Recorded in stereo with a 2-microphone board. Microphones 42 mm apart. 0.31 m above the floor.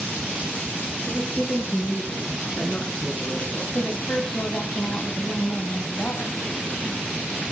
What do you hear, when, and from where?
1.1 s a woman speaking: 50° left (ahead or behind), 7 m; by 3.6 s 40° left (ahead or behind), 4 m
3.7 s a woman speaking: 55° left (ahead or behind), 2 m